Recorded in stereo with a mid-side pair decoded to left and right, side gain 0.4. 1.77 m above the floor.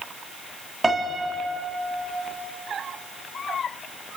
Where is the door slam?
No door slam in this recording.